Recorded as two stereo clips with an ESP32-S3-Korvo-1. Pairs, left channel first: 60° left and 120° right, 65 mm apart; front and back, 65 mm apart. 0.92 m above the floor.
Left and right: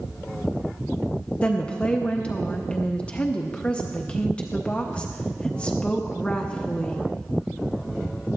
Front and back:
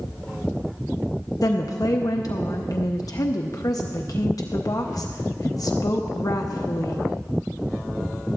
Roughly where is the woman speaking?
Ahead.